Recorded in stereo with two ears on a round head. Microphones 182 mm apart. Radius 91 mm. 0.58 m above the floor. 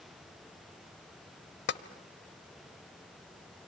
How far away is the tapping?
About 0.9 m.